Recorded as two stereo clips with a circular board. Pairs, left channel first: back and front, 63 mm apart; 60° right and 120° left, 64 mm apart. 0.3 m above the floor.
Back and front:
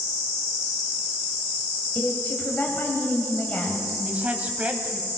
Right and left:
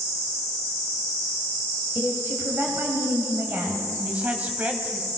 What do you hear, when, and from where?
1.9 s a woman speaking: 135° left, 1.8 m
4.0 s a woman speaking: 60° left, 1.5 m